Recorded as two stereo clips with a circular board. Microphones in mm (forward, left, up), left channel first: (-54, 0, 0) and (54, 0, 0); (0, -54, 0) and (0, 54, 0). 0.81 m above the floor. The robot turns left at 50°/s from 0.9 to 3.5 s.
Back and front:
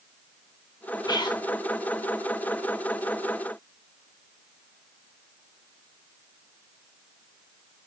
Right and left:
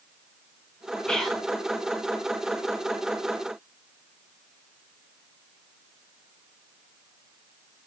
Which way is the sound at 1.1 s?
165° right.